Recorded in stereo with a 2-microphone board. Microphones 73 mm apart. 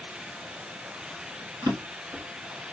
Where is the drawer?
75° right (ahead or behind), 1.0 m.